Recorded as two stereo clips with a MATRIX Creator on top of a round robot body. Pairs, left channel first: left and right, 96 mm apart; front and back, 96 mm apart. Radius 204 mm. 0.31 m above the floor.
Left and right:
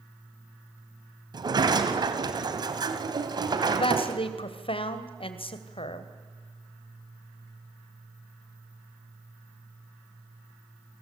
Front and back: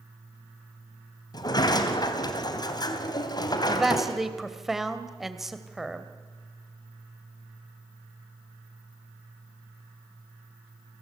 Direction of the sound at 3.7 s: 95° left.